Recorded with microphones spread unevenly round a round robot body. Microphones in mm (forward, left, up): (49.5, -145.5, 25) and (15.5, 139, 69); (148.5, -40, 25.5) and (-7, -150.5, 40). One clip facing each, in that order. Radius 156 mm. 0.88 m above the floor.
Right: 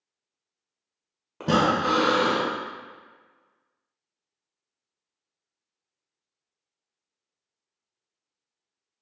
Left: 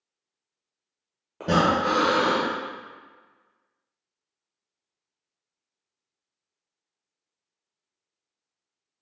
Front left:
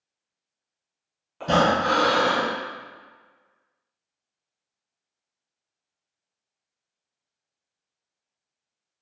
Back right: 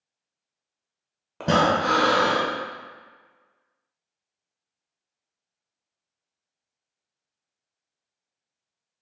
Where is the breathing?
145° right, 0.7 m.